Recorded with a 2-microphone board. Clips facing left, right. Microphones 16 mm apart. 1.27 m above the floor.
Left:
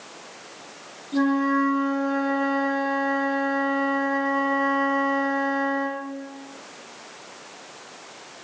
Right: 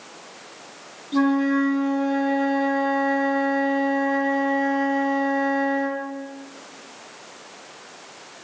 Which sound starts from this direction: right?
A flute, at 1.1 s.